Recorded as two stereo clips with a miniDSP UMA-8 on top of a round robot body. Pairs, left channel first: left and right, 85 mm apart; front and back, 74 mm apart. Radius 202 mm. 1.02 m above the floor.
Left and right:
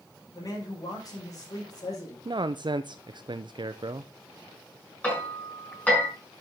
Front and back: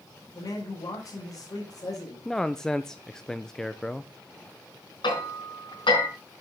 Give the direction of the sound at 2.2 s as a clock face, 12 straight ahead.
3 o'clock.